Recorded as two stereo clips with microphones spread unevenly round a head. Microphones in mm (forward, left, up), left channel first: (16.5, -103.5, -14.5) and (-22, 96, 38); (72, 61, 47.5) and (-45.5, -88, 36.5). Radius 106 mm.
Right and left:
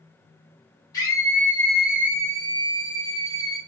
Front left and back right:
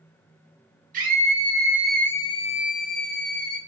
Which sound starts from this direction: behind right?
A scream, at 0.9 s.